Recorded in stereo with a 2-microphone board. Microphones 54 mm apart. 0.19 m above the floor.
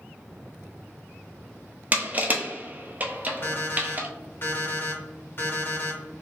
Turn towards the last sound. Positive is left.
turn(degrees=40)  # may be behind; listen again after turning